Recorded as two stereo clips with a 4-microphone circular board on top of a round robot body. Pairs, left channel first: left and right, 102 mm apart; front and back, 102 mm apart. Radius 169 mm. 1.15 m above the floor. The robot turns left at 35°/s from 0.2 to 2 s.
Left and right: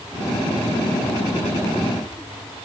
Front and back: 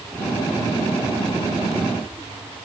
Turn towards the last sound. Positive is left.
No sound to turn to.